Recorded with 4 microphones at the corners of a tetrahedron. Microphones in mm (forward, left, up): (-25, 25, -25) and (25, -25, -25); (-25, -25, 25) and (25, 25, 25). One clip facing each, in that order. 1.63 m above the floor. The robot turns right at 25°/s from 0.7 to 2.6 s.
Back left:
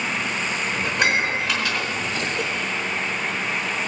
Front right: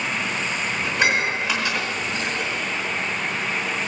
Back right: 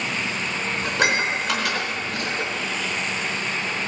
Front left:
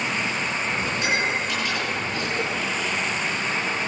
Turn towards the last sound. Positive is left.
turn(degrees=-85)